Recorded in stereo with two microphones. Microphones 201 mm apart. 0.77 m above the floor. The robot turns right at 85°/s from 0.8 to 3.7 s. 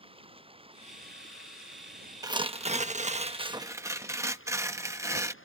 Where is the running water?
155° right; by 5.5 s 95° left.